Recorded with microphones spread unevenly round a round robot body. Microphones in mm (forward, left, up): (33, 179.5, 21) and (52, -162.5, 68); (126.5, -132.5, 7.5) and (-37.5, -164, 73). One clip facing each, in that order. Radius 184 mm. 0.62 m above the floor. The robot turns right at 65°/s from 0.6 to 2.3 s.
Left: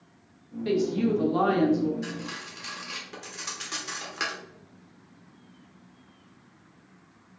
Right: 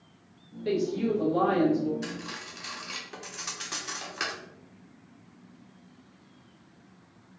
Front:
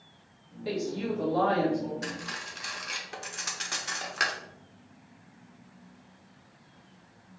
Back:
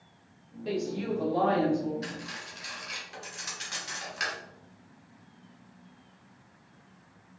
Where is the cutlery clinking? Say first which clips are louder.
Left 2 dB, front 1 dB; 15° right, 1.0 m; by 4.4 s 5° left, 1.0 m.